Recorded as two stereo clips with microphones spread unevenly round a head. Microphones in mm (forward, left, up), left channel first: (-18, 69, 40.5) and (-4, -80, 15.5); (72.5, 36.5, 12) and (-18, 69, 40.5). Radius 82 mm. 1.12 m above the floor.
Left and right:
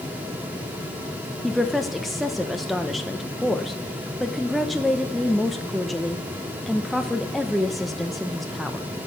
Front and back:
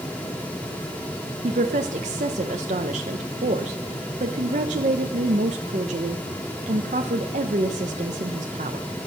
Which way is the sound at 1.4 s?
175° right.